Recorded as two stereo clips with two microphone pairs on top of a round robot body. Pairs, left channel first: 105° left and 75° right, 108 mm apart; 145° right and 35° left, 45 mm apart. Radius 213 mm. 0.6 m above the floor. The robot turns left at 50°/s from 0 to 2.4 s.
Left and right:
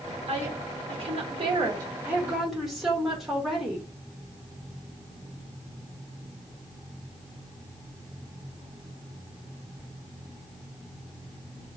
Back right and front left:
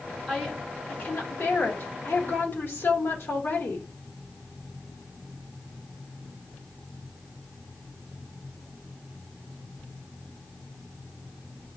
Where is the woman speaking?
55° right, 2 m; by 3.9 s 160° right, 2 m.